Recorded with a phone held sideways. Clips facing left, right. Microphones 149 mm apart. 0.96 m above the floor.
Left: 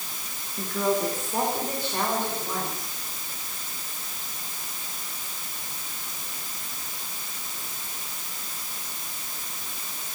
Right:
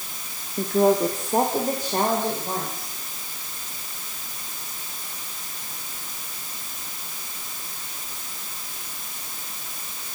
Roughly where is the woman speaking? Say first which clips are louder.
Right 7 dB; right.